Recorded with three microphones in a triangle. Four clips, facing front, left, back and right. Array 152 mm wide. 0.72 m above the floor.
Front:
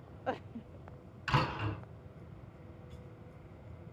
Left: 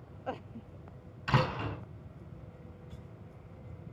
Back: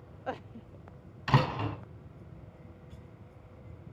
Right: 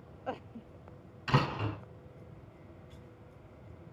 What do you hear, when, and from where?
1.3 s a door slam: straight behind, 4 m